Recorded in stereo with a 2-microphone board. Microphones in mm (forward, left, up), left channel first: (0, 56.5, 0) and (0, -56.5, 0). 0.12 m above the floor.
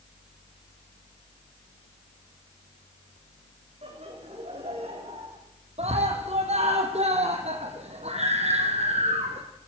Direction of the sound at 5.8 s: 70° right (ahead or behind).